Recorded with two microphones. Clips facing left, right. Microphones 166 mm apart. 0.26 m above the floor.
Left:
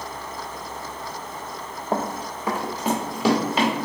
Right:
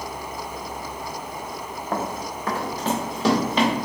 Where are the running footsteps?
20° left (ahead or behind), 0.6 m; by 3.7 s 5° left (ahead or behind), 1.4 m.